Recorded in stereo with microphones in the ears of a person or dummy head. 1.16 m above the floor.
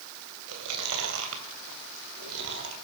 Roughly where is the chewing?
Right.